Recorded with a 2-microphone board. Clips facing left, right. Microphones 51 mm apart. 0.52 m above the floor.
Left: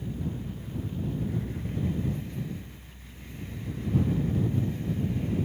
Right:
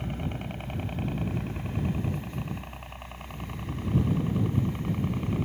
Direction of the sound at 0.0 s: 65° right (ahead or behind).